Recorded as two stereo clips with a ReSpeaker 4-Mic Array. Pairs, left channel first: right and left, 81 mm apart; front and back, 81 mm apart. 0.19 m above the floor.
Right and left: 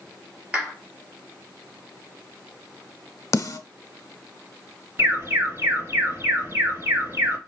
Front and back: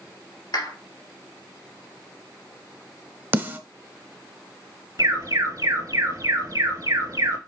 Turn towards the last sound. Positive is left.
turn(degrees=140)